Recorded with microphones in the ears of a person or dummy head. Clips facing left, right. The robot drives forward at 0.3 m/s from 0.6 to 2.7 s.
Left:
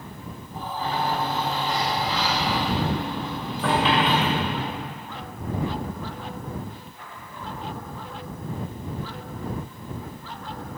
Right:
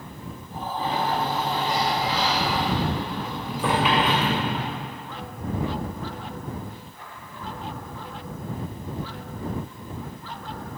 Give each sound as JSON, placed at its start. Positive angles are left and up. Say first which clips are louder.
{"t": 0.8, "sound": "a sliding door", "louder": "right 1 dB", "side_deg": -15, "distance_m": 0.7}